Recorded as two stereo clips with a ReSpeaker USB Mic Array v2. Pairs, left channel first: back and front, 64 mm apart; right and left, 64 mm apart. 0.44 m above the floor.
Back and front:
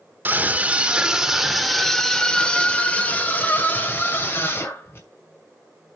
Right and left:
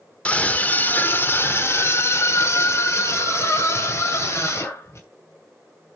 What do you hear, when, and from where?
0.2 s a scream: 35° right, 1.4 m; by 5.1 s 135° right, 3 m